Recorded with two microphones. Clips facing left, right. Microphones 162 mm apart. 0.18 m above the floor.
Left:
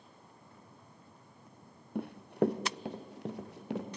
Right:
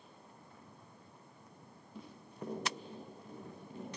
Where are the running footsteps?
60° left (ahead or behind), 1.1 m; by 3.9 s 80° left, 3.5 m.